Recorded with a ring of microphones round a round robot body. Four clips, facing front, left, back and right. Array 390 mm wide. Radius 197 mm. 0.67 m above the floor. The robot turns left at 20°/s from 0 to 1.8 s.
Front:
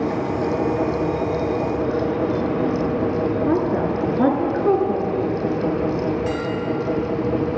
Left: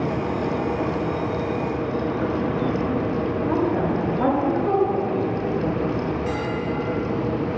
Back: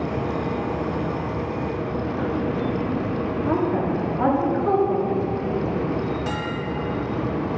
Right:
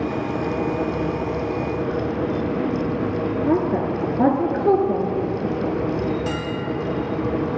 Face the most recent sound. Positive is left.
turn(degrees=-115)